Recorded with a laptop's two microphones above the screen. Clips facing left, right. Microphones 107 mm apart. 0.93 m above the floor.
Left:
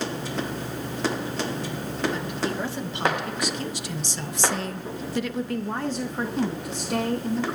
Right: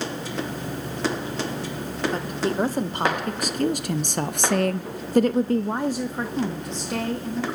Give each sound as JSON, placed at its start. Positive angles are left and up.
{"t": 2.1, "sound": "a woman speaking", "side_deg": -40, "distance_m": 2.0}